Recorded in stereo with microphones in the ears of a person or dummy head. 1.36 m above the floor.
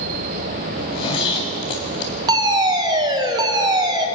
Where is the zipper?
30° left (ahead or behind), 3.5 m.